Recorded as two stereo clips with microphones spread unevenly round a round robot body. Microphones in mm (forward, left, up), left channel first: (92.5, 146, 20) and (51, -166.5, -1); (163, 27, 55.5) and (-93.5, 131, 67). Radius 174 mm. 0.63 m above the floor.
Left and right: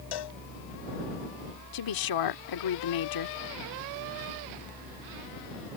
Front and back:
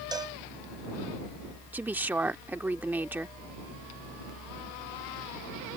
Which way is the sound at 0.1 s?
80° left.